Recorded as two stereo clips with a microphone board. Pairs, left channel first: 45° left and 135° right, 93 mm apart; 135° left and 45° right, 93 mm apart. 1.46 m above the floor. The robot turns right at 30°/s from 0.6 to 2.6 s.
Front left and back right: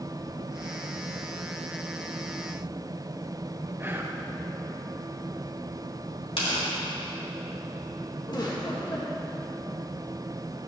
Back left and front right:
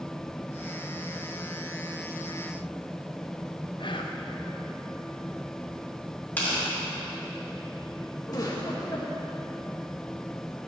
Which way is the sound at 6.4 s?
60° left.